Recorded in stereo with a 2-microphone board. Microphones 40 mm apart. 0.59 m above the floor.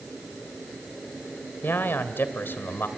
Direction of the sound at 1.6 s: 65° left (ahead or behind).